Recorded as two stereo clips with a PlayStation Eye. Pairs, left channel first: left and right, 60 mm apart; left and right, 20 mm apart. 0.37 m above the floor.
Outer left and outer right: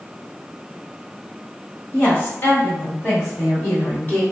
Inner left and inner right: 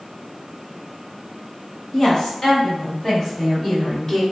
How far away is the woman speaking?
About 1.6 m.